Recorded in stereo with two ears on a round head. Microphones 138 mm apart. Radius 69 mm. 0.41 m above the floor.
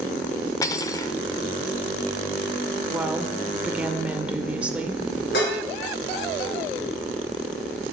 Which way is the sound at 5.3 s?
85° left.